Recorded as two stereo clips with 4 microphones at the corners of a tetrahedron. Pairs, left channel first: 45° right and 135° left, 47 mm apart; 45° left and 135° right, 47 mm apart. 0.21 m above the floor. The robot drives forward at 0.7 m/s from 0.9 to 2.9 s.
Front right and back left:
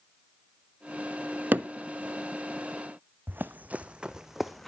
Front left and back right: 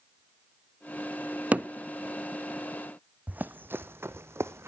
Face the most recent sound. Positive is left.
turn(degrees=-130)